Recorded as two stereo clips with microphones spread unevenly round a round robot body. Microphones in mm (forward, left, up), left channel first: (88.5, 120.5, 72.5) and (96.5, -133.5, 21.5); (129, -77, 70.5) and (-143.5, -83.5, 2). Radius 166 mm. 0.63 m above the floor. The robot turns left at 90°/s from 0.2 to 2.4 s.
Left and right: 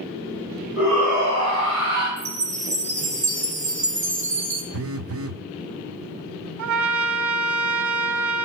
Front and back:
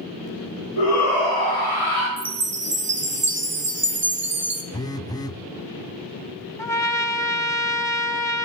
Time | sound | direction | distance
0.8 | a shout | straight ahead | 5.5 m
2.2 | a chime | 125° right | 1.2 m
4.7 | a phone buzzing | 85° right | 0.6 m
6.6 | a trumpet | 70° right | 0.8 m